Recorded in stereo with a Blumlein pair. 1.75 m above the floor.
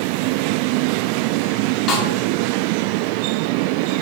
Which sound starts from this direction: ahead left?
A snare drum, at 1.9 s.